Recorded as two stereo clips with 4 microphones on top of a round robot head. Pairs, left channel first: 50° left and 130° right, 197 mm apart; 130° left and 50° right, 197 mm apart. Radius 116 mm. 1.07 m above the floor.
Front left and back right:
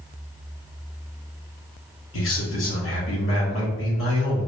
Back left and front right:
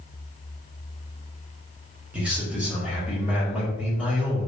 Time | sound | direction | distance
2.1 | a man speaking | 35° left | 1.8 m